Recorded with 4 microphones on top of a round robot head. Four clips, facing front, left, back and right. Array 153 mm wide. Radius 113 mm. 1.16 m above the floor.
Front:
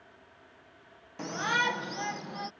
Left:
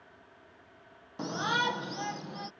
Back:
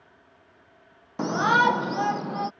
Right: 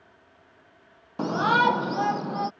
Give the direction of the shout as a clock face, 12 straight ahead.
5 o'clock.